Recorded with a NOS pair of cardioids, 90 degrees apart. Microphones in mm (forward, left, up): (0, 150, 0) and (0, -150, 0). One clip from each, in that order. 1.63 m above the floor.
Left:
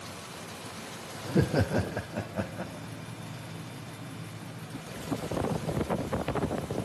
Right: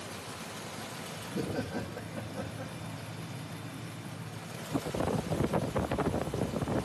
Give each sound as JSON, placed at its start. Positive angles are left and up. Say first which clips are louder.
{"t": 1.2, "sound": "laughter", "louder": "left 9 dB", "azimuth_deg": 60, "distance_m": 0.6}